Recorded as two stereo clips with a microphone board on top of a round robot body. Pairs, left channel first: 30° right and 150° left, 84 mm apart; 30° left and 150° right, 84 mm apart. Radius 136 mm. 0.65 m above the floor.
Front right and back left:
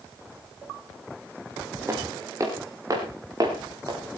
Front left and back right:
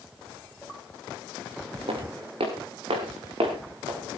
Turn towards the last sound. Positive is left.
turn(degrees=-165)